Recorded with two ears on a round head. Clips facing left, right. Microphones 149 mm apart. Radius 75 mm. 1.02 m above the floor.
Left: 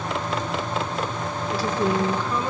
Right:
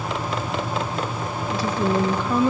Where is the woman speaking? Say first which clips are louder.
Right 1 dB; 15° right (ahead or behind), 1.6 m; by 2.5 s 55° right (ahead or behind), 1.5 m.